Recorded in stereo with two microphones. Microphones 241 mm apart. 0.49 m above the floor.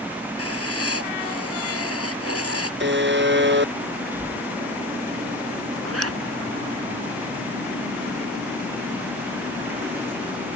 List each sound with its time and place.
0.4 s writing: 75° left (ahead or behind)
2.8 s a buzzer: 50° right (ahead or behind)
4.1 s breathing: 10° right (ahead or behind)
5.8 s a zipper: 80° right